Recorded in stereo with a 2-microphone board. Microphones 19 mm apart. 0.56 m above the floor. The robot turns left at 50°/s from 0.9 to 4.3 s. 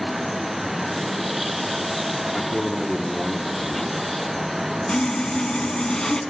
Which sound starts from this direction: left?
Sawing, at 4.9 s.